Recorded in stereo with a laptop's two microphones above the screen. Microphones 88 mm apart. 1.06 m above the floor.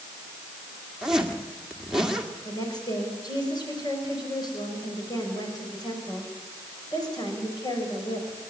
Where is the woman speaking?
50° left (ahead or behind), 5.5 m.